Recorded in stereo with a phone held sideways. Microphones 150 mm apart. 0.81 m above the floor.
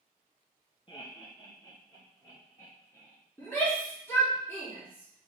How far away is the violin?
I don't hear a violin.